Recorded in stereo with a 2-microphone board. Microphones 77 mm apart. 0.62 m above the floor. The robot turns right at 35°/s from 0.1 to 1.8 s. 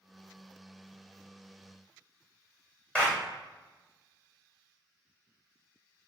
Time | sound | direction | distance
3.0 | a clap | 15° left (ahead or behind) | 1.9 m